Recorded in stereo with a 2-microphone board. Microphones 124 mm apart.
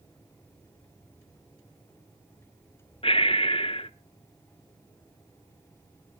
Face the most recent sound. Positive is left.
turn(degrees=45)  # may be behind; listen again after turning